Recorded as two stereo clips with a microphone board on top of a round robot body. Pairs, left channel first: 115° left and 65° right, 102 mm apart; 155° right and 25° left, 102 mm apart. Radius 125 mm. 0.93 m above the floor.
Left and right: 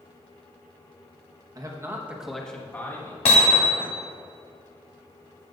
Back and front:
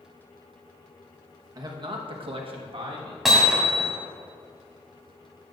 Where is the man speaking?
20° right, 1.5 m; by 3.1 s 55° left, 2 m.